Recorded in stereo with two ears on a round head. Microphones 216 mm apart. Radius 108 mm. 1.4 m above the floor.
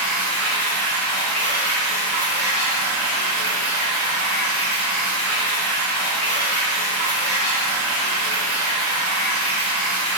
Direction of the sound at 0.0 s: 30° left (ahead or behind).